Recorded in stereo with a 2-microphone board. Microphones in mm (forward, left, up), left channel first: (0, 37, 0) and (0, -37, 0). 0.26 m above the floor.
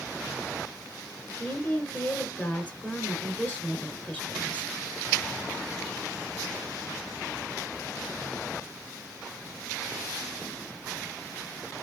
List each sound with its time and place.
1.4 s a woman speaking: 20° left (ahead or behind), 3 m